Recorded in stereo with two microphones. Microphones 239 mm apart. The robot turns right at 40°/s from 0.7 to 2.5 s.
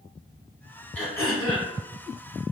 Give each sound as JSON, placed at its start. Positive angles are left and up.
{"t": 0.9, "sound": "throat clearing", "azimuth_deg": 10, "distance_m": 1.0}